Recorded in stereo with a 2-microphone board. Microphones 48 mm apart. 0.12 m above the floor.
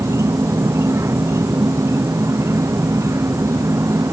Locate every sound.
0.0 s an insect: 75° right (ahead or behind)